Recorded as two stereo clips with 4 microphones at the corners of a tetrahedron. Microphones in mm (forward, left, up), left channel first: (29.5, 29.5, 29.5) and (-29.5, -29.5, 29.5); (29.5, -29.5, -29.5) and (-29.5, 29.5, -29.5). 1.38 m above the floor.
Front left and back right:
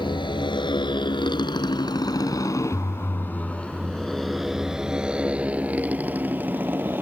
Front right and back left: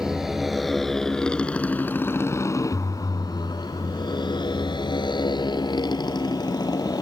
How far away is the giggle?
No giggle in this recording.